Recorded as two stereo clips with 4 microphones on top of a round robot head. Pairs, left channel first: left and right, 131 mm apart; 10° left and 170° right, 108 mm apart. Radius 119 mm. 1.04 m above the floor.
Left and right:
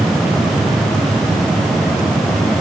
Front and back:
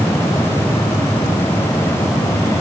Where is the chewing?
No chewing in this recording.